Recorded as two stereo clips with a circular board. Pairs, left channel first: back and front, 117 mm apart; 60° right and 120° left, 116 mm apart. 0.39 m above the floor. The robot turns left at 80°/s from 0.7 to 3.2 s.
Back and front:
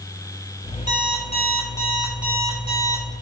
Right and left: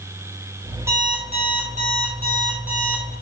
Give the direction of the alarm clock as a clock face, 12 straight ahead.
6 o'clock.